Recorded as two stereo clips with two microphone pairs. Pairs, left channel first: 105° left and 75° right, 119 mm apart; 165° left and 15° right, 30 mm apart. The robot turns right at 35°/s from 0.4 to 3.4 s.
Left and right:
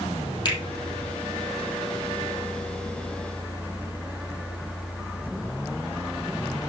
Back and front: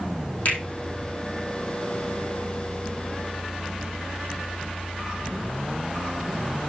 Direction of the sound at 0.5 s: 155° left.